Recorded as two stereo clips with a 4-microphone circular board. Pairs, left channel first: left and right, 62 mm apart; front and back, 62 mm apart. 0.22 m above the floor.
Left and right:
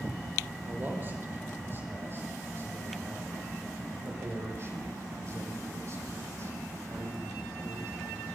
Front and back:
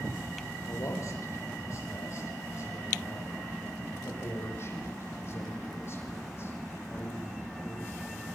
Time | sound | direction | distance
0.6 | a man speaking | 35° right | 6 m